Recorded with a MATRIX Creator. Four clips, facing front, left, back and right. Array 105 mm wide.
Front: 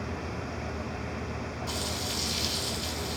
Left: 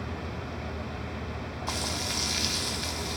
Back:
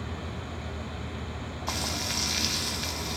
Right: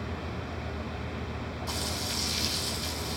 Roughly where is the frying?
Behind left.